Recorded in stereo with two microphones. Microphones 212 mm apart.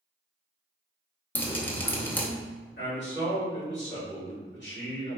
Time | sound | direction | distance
1.4 | dripping | 10° left (ahead or behind) | 0.6 m
2.8 | a man speaking | 55° left (ahead or behind) | 2.0 m